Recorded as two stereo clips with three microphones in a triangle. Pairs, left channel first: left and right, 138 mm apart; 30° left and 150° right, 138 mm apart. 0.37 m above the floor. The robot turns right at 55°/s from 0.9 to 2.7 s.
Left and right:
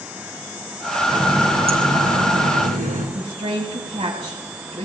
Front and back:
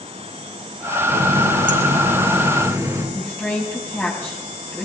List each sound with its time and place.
1.1 s a running tap: 170° right, 2.5 m; by 3.0 s 80° right, 2.5 m
3.1 s a woman speaking: 45° right, 2.5 m